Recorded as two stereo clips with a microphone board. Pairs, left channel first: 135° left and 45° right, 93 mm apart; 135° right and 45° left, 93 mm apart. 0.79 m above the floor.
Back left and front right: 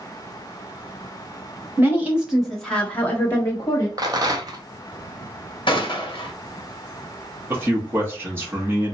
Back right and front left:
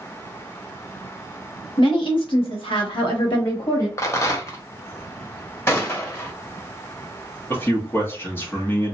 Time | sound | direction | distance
1.8 | a woman speaking | 110° right | 1.2 m
4.0 | a rattle | 85° right | 0.6 m
5.7 | a gunshot | 165° left | 0.8 m
7.5 | a man speaking | 90° right | 0.8 m